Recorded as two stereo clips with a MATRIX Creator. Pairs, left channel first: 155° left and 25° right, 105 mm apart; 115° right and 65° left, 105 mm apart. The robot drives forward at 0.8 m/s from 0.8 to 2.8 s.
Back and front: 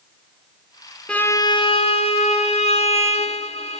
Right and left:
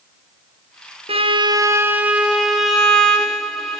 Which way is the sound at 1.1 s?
80° left.